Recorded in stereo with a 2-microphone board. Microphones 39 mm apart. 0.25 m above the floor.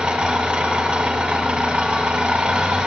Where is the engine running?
35° right (ahead or behind), 1.0 m.